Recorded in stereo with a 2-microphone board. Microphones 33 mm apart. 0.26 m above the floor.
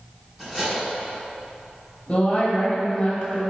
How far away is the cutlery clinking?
About 1.8 m.